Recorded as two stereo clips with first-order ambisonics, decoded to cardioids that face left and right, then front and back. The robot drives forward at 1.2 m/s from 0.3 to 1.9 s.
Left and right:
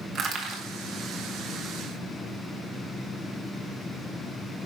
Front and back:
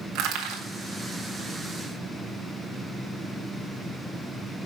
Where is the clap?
No clap in this recording.